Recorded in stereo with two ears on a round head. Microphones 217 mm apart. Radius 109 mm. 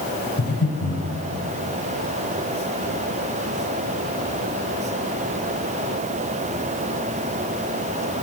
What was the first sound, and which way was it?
Breathing, 50° left (ahead or behind).